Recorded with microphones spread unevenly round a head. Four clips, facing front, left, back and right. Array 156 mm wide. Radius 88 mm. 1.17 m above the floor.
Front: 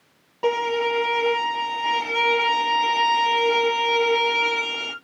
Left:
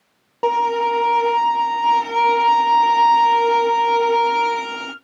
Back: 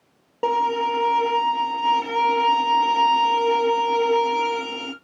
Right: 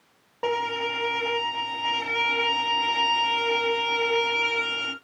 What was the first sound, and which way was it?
A violin, 140° left.